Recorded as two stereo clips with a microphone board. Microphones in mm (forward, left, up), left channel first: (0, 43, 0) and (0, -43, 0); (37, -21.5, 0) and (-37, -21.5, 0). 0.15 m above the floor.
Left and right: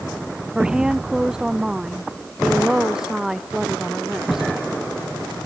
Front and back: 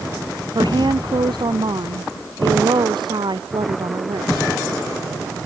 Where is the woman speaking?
170° right; by 4.5 s 175° right.